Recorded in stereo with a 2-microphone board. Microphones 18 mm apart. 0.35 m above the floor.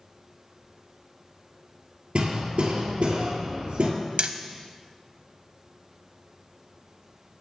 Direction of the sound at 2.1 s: 65° right (ahead or behind).